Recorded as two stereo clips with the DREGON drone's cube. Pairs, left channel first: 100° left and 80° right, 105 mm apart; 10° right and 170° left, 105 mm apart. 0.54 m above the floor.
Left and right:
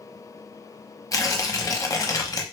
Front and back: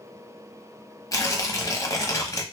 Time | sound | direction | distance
1.1 | tearing paper | 45° left | 0.7 m